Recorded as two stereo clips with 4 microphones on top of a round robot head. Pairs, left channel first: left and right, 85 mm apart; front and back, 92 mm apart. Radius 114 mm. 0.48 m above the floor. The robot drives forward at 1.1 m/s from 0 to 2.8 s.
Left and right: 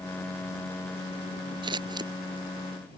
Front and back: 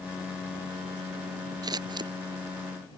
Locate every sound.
1.6 s scissors: 130° right; by 2.1 s 135° right